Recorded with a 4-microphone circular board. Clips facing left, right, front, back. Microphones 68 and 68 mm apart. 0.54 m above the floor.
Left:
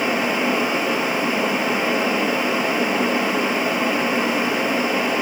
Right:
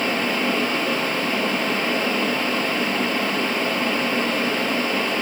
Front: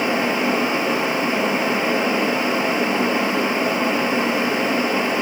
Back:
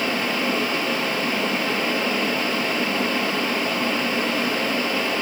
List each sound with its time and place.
Only background noise.